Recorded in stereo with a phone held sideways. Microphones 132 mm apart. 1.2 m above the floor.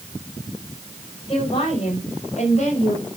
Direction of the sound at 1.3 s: 45° left (ahead or behind).